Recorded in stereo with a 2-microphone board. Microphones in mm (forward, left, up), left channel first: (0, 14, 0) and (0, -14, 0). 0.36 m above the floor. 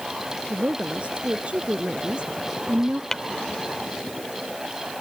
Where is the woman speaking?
45° right (ahead or behind); by 3.0 s 30° right (ahead or behind).